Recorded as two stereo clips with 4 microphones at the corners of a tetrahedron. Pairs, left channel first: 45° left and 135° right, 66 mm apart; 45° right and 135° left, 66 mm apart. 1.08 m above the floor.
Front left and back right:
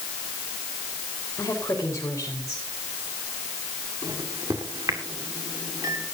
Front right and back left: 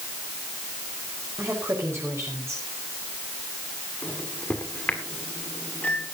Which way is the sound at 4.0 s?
115° right.